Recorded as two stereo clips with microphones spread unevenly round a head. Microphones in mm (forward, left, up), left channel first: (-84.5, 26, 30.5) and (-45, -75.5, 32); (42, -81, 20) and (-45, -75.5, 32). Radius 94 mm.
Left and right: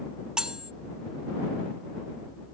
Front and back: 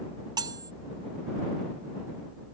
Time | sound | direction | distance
0.4 | cutlery clinking | 150° right | ?